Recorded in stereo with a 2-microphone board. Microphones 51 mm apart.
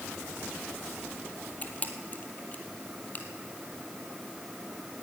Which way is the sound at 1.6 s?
30° left (ahead or behind).